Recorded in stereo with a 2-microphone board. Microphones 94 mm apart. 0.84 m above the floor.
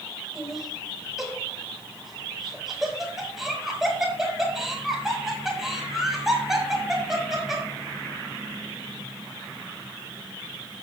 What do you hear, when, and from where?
0.3 s laughter: 5° right (ahead or behind), 5 m